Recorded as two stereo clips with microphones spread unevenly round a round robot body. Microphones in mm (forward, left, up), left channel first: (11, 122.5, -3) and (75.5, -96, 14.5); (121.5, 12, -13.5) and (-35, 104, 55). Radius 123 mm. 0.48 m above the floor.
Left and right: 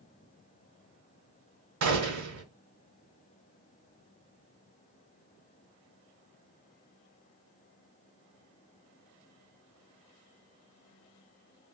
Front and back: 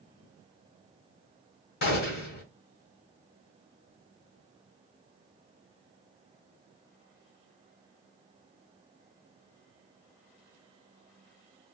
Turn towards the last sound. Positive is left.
turn(degrees=-60)